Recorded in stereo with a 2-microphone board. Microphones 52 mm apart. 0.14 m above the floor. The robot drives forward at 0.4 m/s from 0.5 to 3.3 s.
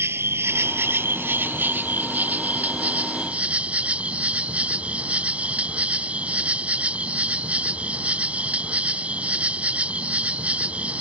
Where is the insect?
55° right (ahead or behind); by 11.0 s 25° right (ahead or behind).